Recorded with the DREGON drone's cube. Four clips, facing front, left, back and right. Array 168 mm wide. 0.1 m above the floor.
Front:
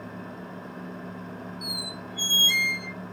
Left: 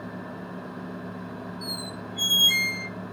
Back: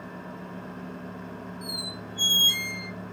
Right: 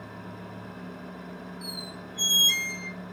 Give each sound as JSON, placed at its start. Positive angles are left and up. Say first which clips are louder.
{"t": 1.6, "sound": "a squeak", "louder": "left 4 dB, even", "azimuth_deg": -80, "distance_m": 0.8}